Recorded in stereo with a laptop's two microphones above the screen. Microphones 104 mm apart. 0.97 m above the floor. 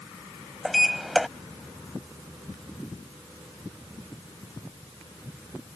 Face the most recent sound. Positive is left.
turn(degrees=0)  # may be behind; listen again after turning